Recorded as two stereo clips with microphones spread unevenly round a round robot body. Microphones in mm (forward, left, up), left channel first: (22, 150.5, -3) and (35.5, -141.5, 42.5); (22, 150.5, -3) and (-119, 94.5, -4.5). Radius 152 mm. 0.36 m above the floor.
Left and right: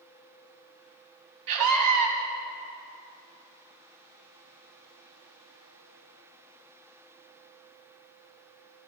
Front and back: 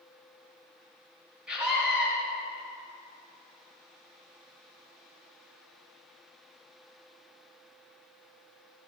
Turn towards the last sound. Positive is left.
turn(degrees=-75)